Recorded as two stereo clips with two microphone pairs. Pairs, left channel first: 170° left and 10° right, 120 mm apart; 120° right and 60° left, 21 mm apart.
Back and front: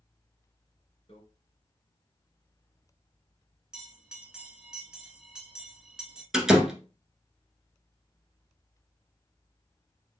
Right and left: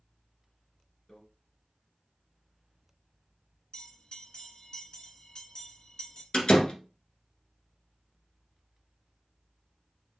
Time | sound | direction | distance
1.1 | a microwave | 170° right | 2 m
3.7 | a bell | 90° right | 1.9 m
6.3 | a door slam | 90° right | 1.4 m